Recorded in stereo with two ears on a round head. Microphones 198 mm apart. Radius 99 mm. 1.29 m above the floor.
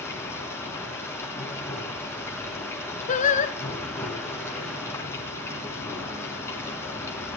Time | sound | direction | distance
0.0 | running water | 10° left (ahead or behind) | 2.5 m
3.1 | singing | 35° left (ahead or behind) | 0.7 m